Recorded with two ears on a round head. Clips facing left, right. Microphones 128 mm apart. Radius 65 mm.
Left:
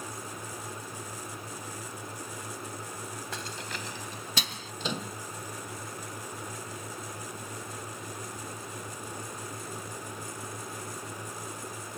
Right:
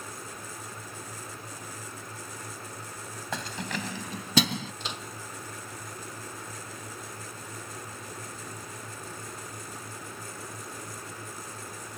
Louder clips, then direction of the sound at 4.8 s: Left 4 dB; 75° left (ahead or behind).